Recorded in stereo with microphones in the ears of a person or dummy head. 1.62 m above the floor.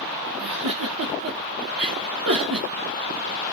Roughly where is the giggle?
Right.